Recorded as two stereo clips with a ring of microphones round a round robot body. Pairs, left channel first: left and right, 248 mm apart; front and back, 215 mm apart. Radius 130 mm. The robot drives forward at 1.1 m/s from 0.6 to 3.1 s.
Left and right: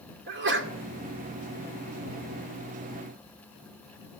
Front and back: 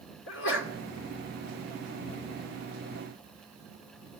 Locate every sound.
0.3 s a sneeze: 45° right, 2.5 m